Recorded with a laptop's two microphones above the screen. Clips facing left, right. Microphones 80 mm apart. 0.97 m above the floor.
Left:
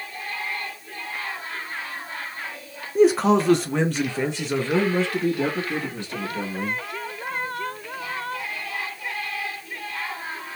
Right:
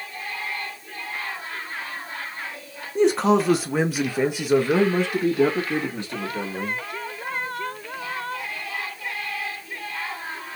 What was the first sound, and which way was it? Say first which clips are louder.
A man speaking: left 1 dB; 5° left (ahead or behind).